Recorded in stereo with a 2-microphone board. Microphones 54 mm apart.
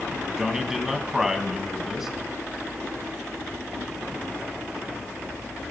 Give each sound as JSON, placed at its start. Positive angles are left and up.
{"t": 0.4, "sound": "a man speaking", "side_deg": -5, "distance_m": 2.0}